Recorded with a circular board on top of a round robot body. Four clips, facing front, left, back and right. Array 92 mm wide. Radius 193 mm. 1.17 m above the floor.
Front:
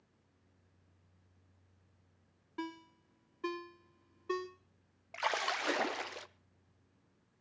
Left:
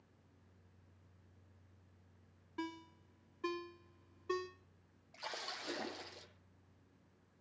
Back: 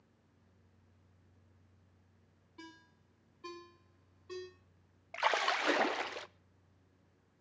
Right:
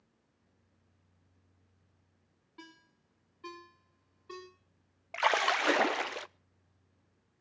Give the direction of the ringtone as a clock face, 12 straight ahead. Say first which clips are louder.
Left 10 dB, front 11 dB; 11 o'clock.